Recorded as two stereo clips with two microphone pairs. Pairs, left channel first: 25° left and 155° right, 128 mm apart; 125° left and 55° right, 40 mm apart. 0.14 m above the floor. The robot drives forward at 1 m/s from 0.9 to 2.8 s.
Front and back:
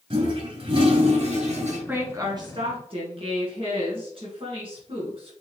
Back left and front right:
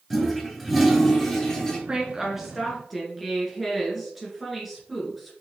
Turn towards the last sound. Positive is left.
turn(degrees=-150)